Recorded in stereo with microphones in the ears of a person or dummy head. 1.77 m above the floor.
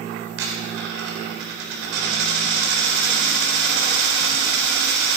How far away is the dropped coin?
About 3.5 m.